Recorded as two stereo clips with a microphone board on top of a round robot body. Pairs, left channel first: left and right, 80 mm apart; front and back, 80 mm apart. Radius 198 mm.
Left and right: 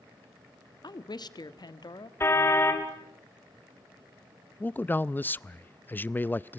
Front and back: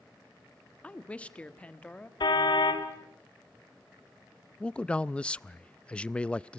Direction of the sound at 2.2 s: 30° left.